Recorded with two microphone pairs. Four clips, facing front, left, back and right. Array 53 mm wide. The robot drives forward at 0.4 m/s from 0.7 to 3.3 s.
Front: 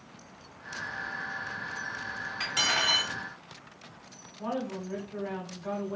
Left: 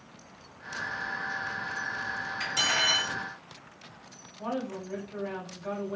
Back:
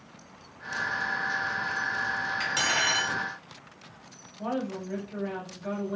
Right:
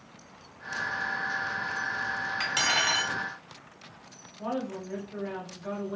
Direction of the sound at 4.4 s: Straight behind.